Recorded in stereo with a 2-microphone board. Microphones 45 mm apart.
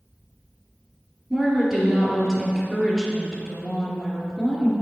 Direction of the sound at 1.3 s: 10° right (ahead or behind).